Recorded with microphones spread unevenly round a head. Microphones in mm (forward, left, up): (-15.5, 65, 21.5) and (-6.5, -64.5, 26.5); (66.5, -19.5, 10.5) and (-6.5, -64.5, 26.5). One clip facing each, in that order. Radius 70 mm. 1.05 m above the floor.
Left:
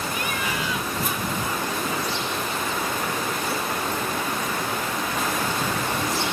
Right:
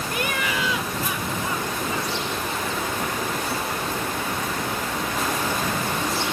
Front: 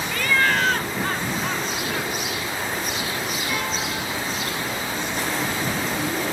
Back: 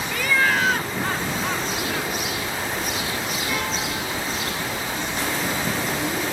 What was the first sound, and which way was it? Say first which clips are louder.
Laughter: right 2 dB, even; 60° right.